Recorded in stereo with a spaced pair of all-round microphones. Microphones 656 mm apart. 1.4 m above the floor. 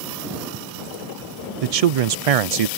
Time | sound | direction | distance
1.6 | a man speaking | 65° right (ahead or behind) | ?